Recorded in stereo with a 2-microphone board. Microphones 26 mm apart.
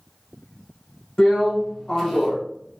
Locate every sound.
1.2 s a drill: 20° left (ahead or behind), 1.7 m